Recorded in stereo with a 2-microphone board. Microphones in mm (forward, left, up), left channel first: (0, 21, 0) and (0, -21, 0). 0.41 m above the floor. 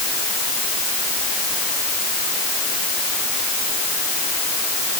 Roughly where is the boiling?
I don't hear boiling.